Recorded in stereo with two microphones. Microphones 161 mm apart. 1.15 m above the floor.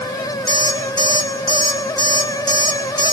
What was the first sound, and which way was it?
An alarm clock, 25° left (ahead or behind).